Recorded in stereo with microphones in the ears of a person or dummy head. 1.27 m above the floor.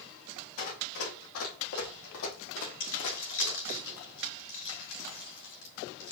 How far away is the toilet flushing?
I don't hear a toilet flushing.